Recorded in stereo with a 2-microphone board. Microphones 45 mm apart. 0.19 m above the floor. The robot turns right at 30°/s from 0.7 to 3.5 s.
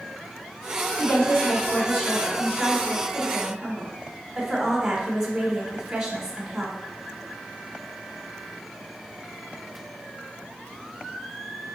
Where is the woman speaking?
10° left (ahead or behind), 1.1 m; by 6.8 s 20° right (ahead or behind), 1.1 m.